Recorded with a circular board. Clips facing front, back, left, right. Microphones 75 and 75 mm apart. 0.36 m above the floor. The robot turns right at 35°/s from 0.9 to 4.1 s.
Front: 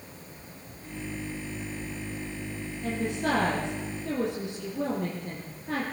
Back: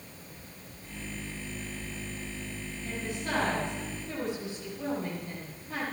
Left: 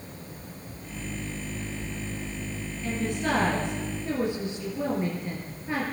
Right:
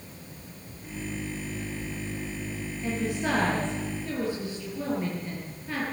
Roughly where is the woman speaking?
Ahead right.